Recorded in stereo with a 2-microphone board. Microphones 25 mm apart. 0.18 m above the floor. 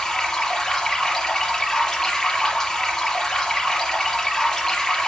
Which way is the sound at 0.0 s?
25° left (ahead or behind).